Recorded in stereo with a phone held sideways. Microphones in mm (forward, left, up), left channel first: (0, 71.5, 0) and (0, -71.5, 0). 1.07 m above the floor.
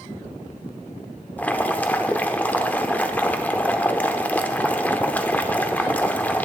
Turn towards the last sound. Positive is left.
turn(degrees=10)  # may be behind; listen again after turning